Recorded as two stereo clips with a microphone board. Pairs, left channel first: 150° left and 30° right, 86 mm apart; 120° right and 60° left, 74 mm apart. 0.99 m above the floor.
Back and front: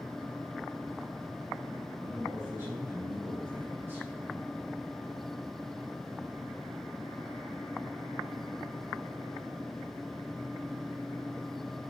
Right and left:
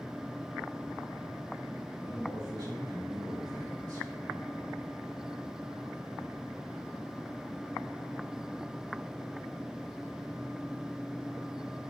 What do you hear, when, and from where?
1.9 s a man speaking: 35° left, 3 m